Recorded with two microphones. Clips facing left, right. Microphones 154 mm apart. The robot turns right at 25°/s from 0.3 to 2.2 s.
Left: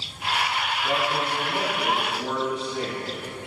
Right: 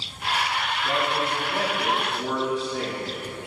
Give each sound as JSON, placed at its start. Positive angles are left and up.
{"t": 0.8, "sound": "a man speaking", "azimuth_deg": 145, "distance_m": 2.5}